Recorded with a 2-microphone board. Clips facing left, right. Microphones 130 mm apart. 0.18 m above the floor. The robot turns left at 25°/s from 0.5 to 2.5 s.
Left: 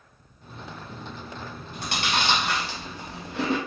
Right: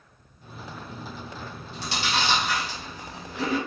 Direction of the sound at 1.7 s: 55° left (ahead or behind).